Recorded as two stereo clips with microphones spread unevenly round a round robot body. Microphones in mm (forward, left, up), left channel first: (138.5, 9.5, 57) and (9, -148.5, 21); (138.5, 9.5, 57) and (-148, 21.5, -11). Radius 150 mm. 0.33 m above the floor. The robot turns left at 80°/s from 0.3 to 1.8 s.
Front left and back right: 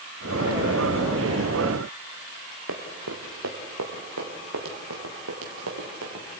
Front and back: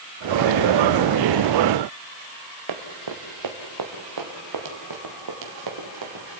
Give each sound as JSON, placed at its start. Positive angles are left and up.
{"t": 2.7, "sound": "running footsteps", "azimuth_deg": -165, "distance_m": 2.5}